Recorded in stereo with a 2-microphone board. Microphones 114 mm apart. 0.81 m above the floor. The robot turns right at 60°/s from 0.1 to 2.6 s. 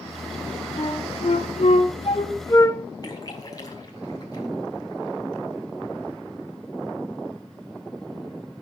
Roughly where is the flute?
Left.